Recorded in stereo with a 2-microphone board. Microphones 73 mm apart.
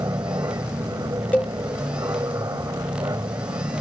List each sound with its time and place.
0.0 s an aircraft: 50° right (ahead or behind)
1.3 s a cowbell: 20° left (ahead or behind)